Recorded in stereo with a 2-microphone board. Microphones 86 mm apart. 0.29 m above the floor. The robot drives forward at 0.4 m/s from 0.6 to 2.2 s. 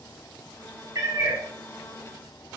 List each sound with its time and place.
0.9 s a cat meowing: 40° right (ahead or behind), 0.7 m